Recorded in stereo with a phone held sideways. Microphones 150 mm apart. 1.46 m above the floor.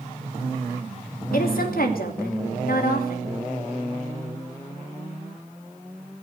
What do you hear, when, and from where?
1.3 s a woman speaking: 75° left (ahead or behind), 2.5 m